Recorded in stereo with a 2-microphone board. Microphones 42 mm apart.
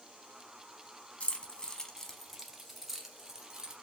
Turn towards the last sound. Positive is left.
turn(degrees=-20)  # may be behind; listen again after turning